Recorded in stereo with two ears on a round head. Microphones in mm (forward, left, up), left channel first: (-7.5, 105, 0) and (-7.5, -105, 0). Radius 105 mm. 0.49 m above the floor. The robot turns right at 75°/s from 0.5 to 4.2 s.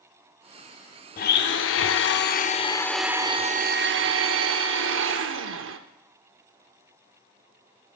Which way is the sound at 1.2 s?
40° left.